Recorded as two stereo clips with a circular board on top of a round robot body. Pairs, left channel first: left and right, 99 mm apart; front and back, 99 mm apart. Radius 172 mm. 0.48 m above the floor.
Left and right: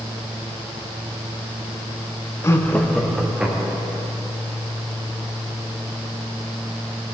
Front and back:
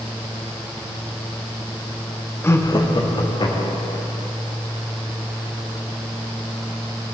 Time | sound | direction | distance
2.4 | laughter | 50° left | 1.0 m